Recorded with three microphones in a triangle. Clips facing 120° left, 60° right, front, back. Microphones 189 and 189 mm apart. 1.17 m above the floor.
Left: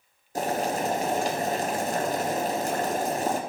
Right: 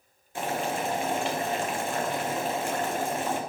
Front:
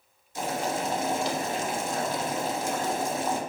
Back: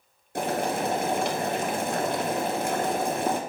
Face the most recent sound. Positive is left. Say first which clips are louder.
# left 3 dB, back 3 dB
turn(degrees=165)